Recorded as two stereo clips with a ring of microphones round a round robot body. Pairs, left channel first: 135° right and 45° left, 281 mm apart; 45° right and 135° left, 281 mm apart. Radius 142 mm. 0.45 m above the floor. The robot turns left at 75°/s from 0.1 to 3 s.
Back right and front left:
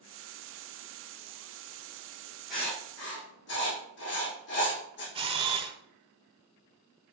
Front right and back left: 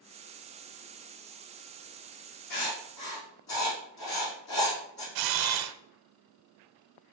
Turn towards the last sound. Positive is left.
turn(degrees=120)